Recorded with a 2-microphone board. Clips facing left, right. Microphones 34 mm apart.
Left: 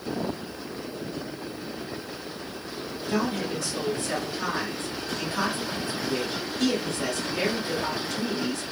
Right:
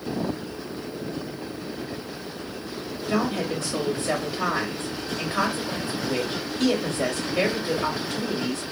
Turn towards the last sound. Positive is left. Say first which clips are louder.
# right 2 dB
turn(degrees=-30)  # may be behind; listen again after turning